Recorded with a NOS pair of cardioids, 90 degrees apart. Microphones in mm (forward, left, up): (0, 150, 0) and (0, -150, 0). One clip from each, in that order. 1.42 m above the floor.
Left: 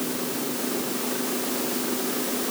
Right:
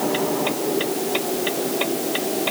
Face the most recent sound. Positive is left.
No sound to turn to.